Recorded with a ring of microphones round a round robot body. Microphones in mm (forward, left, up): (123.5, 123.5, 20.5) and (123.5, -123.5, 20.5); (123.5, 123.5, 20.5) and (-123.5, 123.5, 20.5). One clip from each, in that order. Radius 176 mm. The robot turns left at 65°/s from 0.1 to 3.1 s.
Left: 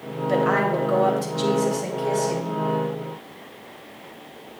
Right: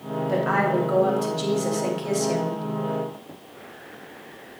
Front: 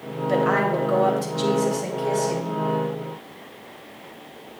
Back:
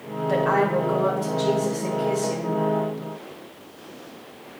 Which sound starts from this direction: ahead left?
A woman speaking, at 0.3 s.